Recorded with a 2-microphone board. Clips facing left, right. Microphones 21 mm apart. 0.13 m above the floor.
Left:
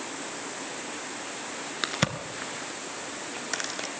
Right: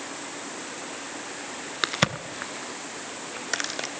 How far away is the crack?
About 0.8 m.